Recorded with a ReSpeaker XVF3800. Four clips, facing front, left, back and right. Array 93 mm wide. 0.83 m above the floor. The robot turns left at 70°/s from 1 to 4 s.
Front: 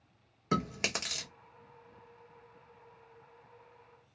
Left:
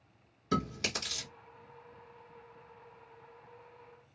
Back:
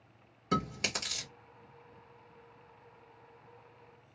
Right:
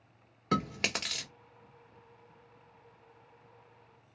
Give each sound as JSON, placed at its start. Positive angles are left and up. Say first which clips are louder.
{"t": 0.5, "sound": "chewing", "louder": "right 2 dB, even", "azimuth_deg": -65, "distance_m": 1.3}